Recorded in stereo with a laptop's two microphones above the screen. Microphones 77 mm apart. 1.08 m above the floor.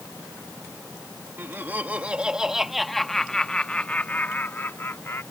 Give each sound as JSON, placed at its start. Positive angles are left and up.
{"t": 1.4, "sound": "laughter", "side_deg": -30}